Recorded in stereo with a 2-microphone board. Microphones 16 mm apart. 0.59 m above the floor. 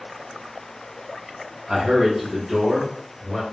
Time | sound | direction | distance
1.7 | a man speaking | 30° right (ahead or behind) | 1.3 m